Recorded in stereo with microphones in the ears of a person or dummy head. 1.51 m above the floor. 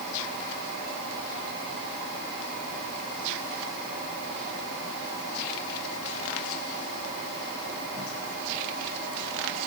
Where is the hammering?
I don't hear hammering.